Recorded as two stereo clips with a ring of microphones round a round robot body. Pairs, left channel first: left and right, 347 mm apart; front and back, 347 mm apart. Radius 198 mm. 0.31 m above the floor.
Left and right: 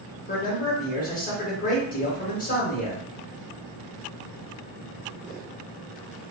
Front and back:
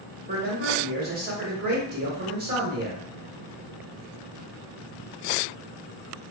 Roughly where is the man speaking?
Behind left.